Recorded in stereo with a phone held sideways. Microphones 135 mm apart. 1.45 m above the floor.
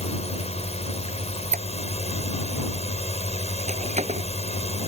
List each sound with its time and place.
0.0 s a drone: 50° left (ahead or behind)
1.1 s a squeak: 60° right (ahead or behind)